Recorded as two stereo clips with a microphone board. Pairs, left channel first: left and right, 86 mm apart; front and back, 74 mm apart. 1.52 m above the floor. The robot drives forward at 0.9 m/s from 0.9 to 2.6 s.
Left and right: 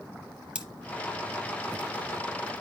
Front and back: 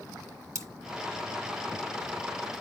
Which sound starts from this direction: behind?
Cutlery clinking, at 0.6 s.